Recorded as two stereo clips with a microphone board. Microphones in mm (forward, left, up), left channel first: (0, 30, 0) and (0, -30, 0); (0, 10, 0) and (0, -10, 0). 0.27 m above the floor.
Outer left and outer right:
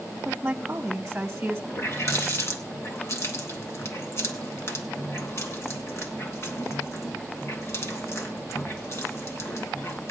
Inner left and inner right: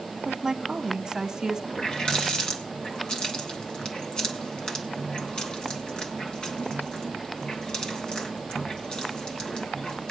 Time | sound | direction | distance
0.2 | a woman speaking | 20° right (ahead or behind) | 1.1 m
1.7 | a running tap | 50° left (ahead or behind) | 2 m